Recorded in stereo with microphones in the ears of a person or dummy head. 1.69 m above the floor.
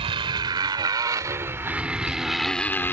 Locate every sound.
0.0 s a motorcycle: 30° right (ahead or behind); by 2.9 s 5° left (ahead or behind)